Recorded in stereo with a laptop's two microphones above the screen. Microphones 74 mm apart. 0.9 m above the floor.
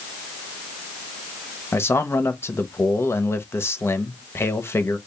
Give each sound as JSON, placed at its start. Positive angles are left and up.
{"t": 1.7, "sound": "a man speaking", "side_deg": 35, "distance_m": 0.8}